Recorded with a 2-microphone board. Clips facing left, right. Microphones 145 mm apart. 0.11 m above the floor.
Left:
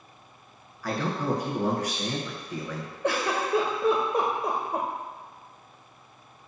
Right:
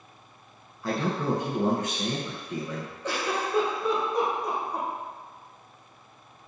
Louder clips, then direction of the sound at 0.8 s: Right 1 dB; 25° right (ahead or behind).